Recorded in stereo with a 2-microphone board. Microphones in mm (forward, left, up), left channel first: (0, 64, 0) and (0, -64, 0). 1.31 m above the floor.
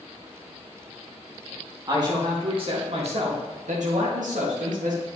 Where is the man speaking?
30° right (ahead or behind), 2 m; by 5.0 s 85° right, 2 m.